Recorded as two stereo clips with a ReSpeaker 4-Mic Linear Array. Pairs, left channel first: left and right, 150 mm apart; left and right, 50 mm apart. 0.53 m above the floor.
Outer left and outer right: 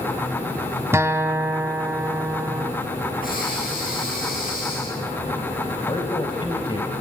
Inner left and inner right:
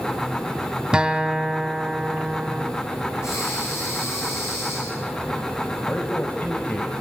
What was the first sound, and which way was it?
A guitar, 15° right (ahead or behind).